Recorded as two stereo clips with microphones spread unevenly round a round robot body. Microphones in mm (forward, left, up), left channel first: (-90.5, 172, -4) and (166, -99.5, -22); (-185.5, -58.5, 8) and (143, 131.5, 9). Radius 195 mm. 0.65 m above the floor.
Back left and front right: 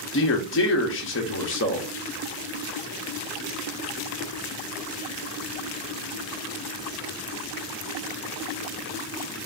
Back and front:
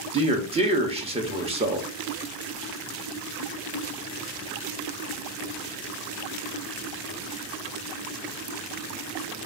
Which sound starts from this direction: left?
A man speaking, at 0.1 s.